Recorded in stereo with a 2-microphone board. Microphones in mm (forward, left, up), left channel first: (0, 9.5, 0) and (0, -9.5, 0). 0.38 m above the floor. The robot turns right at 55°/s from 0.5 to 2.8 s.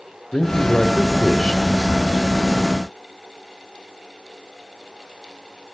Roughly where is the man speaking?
Ahead left.